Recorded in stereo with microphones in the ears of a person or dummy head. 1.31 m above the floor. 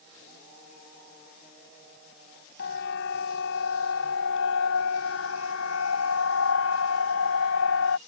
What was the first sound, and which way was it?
A siren, 70° left (ahead or behind).